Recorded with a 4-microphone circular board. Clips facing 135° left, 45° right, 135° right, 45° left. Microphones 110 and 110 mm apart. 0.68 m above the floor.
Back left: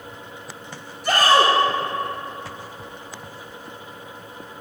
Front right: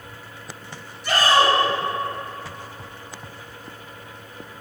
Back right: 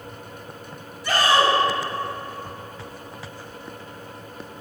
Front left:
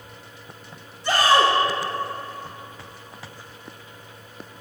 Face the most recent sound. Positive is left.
turn(degrees=105)